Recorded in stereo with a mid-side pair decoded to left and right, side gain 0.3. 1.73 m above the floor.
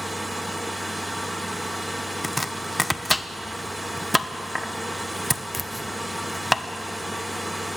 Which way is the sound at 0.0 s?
5° right.